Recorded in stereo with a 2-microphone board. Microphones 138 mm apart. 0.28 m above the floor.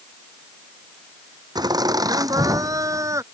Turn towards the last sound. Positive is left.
turn(degrees=-20)  # may be behind; listen again after turning